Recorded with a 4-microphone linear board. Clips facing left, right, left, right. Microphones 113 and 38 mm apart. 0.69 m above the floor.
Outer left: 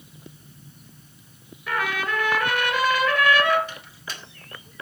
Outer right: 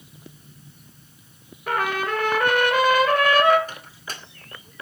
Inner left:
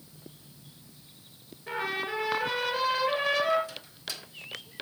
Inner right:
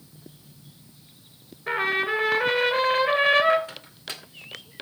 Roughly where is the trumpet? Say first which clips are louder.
Outer right 3 dB, inner right 8 dB; right.